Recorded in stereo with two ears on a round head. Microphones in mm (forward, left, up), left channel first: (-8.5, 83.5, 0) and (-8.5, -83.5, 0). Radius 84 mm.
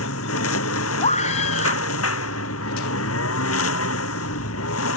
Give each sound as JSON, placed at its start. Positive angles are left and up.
{"t": 0.0, "sound": "a lawn mower", "side_deg": 85}
{"t": 1.0, "sound": "a scream", "side_deg": 40}